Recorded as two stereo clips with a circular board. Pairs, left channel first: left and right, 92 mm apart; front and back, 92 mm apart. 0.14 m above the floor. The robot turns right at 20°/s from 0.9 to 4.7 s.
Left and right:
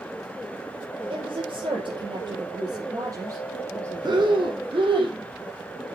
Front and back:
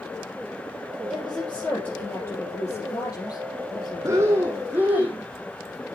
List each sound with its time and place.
1.1 s a woman speaking: 80° right, 4.5 m; by 5.0 s 10° right, 4.5 m
4.0 s breathing: 125° right, 1.9 m; by 5.2 s 110° right, 1.9 m